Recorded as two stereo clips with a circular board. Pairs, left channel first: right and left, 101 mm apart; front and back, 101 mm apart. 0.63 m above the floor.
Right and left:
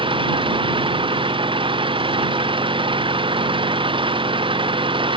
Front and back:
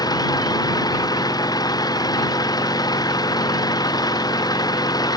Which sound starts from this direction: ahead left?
An engine running, at 0.0 s.